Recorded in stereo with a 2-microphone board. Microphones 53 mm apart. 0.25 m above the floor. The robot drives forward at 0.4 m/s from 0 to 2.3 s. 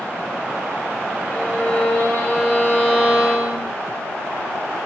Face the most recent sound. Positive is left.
turn(degrees=30)  # may be behind; listen again after turning